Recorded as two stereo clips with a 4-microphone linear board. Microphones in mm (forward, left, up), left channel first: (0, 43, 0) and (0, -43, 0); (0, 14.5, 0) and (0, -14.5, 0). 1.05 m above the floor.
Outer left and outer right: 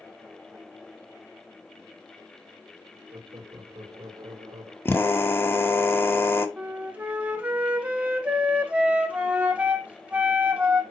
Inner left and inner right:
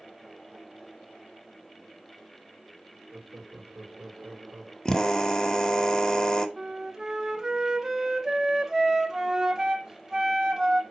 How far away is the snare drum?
No snare drum in this recording.